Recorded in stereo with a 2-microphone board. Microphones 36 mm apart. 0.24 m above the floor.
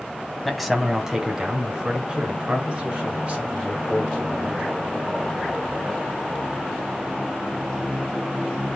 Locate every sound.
0.5 s a man speaking: centre (ahead or behind), 1.3 m; by 4.7 s 35° right (ahead or behind), 5 m